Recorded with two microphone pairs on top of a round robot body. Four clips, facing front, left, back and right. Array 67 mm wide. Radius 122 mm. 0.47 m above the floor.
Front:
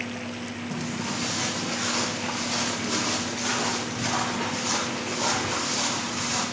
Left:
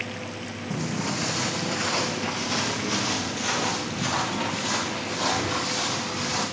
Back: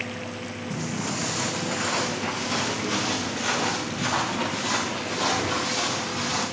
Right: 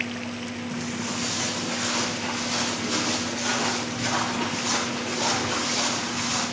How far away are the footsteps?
About 1.8 m.